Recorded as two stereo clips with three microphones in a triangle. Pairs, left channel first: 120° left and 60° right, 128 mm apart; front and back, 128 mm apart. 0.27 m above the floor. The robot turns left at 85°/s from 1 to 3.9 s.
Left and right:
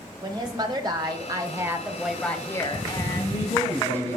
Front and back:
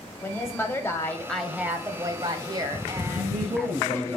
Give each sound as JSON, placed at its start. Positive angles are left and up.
{"t": 0.2, "sound": "a woman speaking", "azimuth_deg": -55, "distance_m": 1.3}
{"t": 3.1, "sound": "a man speaking", "azimuth_deg": -175, "distance_m": 3.0}